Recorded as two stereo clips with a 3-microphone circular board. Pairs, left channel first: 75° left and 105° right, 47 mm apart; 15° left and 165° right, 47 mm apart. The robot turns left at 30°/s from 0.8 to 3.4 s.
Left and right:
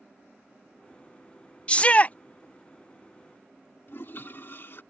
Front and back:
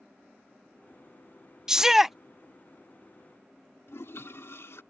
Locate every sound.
1.7 s a shout: 125° left; by 2.1 s 110° left
3.9 s a toilet flushing: 35° left